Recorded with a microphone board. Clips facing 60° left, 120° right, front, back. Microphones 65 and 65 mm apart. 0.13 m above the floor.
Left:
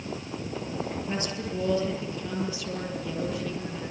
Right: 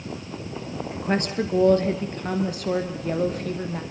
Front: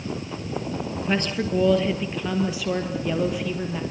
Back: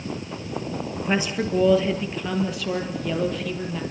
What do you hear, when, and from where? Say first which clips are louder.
0.9 s a woman speaking: right 7 dB, back 1 dB; 105° right, 3 m; by 3.8 s 80° right, 5 m